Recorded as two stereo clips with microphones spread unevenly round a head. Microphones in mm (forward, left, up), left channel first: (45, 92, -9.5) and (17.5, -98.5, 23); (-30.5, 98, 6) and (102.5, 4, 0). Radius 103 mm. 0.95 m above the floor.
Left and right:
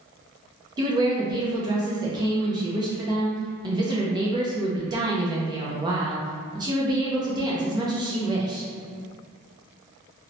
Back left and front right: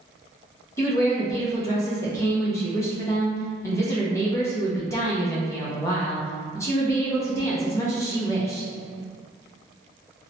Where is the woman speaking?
160° right, 0.5 m.